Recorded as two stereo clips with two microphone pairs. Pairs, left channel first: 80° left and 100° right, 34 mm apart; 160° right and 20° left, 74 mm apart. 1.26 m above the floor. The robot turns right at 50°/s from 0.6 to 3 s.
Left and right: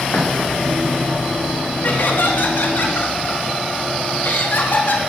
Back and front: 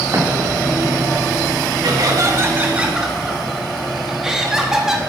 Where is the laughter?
45° left, 2.5 m; by 5.0 s 100° left, 2.5 m.